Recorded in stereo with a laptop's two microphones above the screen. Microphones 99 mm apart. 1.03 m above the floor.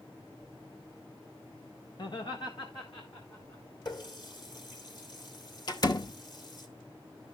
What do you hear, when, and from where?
2.0 s laughter: 45° left (ahead or behind), 1.0 m
3.9 s a running tap: 45° left (ahead or behind), 1.9 m
5.7 s a door slam: 45° left (ahead or behind), 1.0 m